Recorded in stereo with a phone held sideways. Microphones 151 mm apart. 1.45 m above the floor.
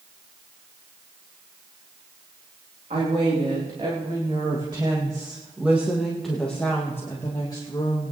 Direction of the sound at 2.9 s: 50° right (ahead or behind).